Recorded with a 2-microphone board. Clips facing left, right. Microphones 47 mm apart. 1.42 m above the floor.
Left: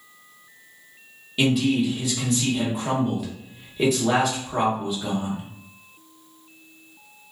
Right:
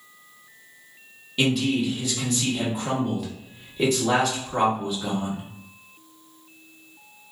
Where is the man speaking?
5° left (ahead or behind), 0.9 m.